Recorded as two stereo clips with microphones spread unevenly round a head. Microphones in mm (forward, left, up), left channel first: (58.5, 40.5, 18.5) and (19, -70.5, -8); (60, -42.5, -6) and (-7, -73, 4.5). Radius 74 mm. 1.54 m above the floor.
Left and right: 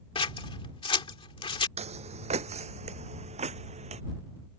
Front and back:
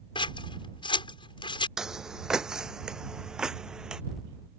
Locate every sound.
0.1 s scissors: 25° left
1.8 s footsteps: 80° right